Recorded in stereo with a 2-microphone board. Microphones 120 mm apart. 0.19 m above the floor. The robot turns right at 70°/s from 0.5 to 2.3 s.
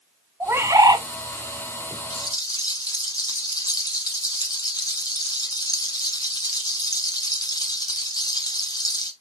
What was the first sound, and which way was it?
A bird, 140° right.